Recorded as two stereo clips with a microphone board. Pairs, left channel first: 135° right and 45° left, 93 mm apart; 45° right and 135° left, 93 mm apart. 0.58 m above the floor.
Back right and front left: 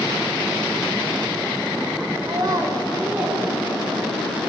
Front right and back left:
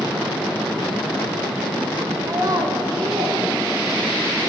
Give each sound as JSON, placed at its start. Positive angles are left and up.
{"t": 2.2, "sound": "a child speaking", "azimuth_deg": 80, "distance_m": 1.0}